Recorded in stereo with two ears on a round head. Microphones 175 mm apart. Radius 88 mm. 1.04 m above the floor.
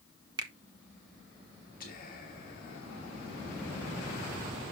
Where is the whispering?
45° left (ahead or behind), 1.7 m.